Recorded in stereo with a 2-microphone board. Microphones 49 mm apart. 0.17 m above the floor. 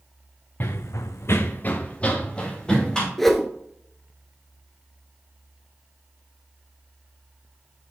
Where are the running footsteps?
45° left (ahead or behind), 0.6 m; by 3.1 s 15° left (ahead or behind), 2.5 m.